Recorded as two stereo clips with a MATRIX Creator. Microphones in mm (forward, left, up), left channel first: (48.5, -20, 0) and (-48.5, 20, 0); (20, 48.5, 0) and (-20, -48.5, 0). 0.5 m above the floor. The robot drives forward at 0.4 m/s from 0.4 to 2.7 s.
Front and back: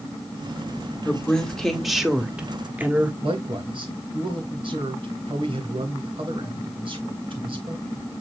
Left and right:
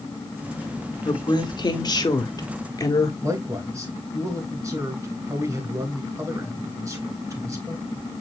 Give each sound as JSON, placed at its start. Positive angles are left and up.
{"t": 1.1, "sound": "a woman speaking", "azimuth_deg": 50, "distance_m": 1.5}
{"t": 3.2, "sound": "a man speaking", "azimuth_deg": -170, "distance_m": 2.5}